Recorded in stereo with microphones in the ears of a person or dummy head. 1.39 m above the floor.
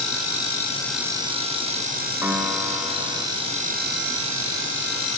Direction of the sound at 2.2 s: 10° right (ahead or behind).